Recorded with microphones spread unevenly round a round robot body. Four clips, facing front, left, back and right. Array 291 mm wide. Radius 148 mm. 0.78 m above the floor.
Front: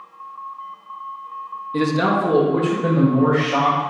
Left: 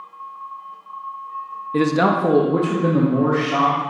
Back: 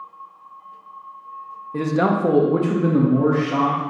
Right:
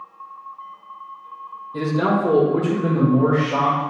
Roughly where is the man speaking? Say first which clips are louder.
Left 3 dB, front 1 dB; left.